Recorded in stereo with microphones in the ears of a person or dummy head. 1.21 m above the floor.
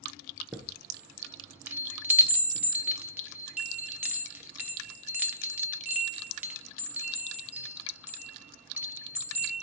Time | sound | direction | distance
0.5 | a chime | 15° right (ahead or behind) | 0.5 m